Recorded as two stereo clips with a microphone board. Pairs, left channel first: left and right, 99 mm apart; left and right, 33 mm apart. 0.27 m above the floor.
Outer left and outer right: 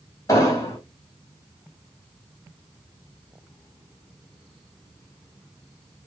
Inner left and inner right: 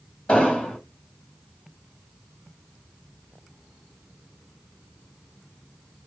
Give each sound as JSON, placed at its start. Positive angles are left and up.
{"t": 0.3, "sound": "an explosion", "side_deg": 30, "distance_m": 1.9}